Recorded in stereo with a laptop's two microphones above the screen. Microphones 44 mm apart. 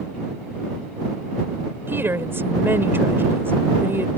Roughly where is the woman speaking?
Right.